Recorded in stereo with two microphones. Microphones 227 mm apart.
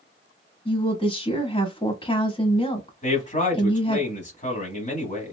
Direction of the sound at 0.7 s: 25° left (ahead or behind).